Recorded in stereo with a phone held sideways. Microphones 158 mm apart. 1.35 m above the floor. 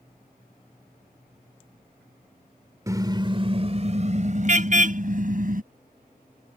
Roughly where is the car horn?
Right.